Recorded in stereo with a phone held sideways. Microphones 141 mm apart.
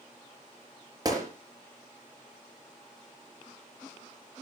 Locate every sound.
1.1 s a gunshot: 30° right (ahead or behind), 5 m